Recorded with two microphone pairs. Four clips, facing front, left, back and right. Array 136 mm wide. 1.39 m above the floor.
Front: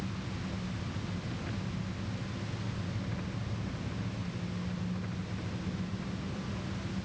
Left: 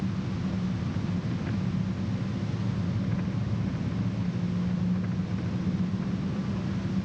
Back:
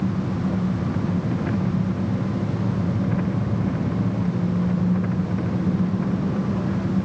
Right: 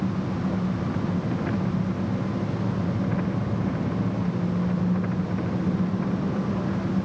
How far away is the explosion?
I don't hear an explosion.